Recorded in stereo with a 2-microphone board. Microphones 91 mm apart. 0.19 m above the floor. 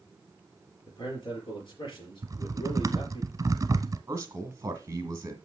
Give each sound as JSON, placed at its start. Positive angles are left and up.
{"t": 0.9, "sound": "a man speaking", "side_deg": 55, "distance_m": 4.5}
{"t": 2.2, "sound": "typing on a keyboard", "side_deg": -35, "distance_m": 0.7}
{"t": 4.1, "sound": "a man speaking", "side_deg": -30, "distance_m": 2.0}